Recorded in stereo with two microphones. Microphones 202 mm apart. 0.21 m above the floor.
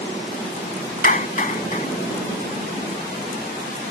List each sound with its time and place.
1.0 s a clap: 45° left (ahead or behind)